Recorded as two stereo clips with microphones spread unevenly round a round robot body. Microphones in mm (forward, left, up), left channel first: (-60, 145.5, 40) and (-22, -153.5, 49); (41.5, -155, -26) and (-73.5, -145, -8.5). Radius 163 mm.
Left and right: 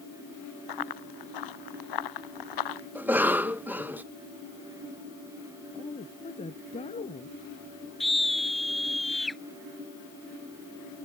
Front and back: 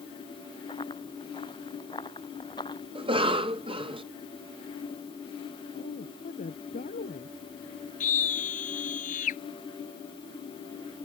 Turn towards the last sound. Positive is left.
turn(degrees=10)